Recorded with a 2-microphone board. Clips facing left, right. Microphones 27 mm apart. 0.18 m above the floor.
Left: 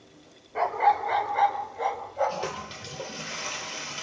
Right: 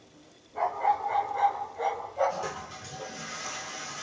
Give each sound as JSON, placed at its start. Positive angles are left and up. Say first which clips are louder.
{"t": 0.6, "sound": "a dog barking", "louder": "left 4 dB", "side_deg": 75, "distance_m": 0.8}
{"t": 2.3, "sound": "a toilet flushing", "louder": "left 2 dB", "side_deg": 50, "distance_m": 1.0}